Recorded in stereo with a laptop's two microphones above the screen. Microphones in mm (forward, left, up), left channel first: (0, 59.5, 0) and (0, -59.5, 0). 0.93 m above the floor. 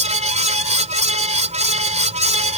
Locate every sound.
0.0 s a fan: 70° right (ahead or behind)